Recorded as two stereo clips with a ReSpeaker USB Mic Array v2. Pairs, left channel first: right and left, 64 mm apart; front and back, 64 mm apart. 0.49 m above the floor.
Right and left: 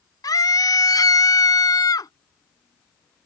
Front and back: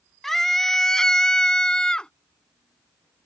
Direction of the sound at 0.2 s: 85° right.